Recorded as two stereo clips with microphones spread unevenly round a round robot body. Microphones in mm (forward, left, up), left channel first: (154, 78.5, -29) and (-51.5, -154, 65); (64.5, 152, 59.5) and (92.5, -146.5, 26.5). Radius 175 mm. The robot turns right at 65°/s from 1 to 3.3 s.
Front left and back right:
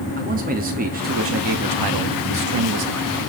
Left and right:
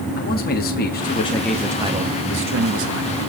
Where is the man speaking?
155° left, 1.4 m; by 3.1 s 70° right, 1.4 m.